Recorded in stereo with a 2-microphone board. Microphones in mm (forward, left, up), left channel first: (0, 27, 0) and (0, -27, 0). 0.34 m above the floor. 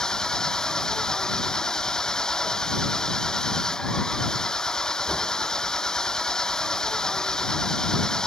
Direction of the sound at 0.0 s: 10° left (ahead or behind).